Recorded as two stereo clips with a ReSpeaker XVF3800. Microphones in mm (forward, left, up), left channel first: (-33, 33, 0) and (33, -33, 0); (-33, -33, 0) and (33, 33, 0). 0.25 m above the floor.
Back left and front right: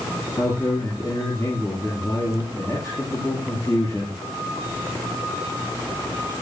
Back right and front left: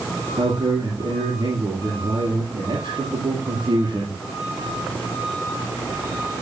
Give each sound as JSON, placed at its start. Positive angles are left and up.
{"t": 0.4, "sound": "a man speaking", "azimuth_deg": 80, "distance_m": 5.0}